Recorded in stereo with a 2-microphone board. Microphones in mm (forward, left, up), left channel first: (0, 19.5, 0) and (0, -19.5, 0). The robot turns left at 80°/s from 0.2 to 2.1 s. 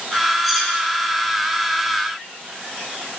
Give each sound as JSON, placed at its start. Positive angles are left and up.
{"t": 0.4, "sound": "cutlery clinking", "side_deg": 10, "distance_m": 4.0}